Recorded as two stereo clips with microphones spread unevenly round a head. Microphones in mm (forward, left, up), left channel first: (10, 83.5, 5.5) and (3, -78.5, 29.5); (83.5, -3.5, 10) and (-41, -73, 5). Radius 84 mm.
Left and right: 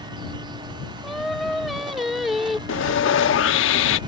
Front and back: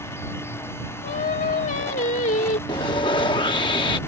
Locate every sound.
1.0 s singing: 5° right
2.7 s sawing: 90° left